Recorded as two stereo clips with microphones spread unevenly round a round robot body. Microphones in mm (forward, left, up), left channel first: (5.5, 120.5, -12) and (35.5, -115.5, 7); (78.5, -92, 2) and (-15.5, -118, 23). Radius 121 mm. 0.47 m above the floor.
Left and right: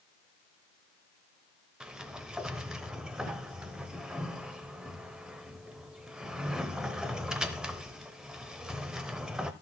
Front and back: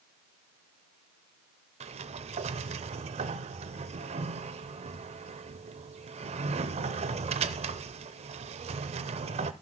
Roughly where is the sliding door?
Behind.